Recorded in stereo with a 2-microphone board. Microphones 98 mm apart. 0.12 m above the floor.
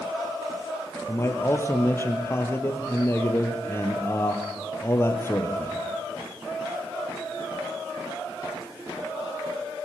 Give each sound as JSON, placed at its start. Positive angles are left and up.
{"t": 1.1, "sound": "a man speaking", "side_deg": 25, "distance_m": 2.5}